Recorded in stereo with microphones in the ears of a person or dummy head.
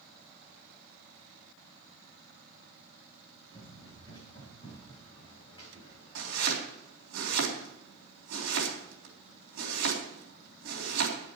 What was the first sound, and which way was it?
Running footsteps, 20° left (ahead or behind).